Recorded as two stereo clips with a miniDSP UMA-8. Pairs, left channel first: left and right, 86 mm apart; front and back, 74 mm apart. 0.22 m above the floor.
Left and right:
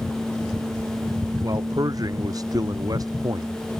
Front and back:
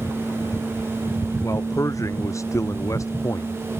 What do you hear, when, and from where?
1.4 s a man speaking: 45° right